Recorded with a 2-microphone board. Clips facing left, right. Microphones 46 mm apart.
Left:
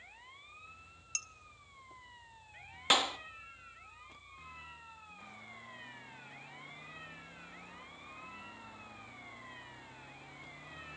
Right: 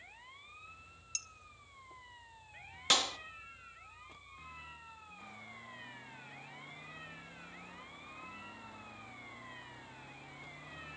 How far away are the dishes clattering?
About 1.4 m.